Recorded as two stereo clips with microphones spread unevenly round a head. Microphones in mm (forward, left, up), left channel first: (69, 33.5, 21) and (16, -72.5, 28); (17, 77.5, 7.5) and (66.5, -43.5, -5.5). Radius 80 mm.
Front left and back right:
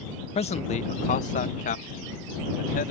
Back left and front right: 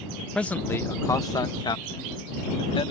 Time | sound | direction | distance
0.3 | a man speaking | 30° left | ?